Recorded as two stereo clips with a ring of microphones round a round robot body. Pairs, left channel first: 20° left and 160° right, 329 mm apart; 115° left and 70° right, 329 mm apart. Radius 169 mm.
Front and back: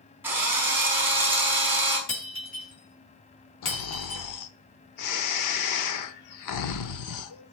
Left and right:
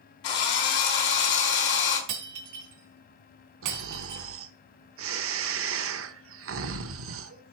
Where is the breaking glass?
30° right, 3.5 m.